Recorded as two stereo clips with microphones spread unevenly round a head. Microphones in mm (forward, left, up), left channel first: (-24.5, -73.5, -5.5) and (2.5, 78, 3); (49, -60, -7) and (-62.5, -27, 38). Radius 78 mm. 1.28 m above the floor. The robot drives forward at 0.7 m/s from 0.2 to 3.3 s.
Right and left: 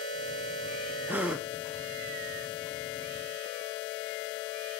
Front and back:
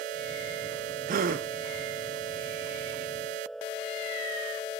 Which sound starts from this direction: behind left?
A gasp, at 1.1 s.